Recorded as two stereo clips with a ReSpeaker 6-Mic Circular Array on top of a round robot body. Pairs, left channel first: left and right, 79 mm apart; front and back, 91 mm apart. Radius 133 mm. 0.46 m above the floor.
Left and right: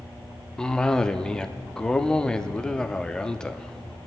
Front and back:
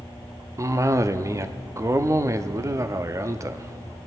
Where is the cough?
165° left, 0.8 m.